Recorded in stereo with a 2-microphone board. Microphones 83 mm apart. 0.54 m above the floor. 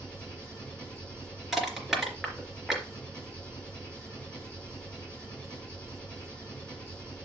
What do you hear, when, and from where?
0.0 s an engine running: 15° left (ahead or behind), 5 m
1.5 s crushing: 5° right (ahead or behind), 3 m